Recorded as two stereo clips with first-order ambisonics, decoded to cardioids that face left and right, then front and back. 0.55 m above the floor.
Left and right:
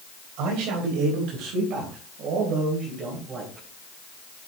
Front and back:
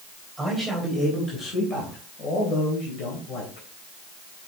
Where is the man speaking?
90° right, 3.5 m; by 3.7 s 30° right, 3.5 m.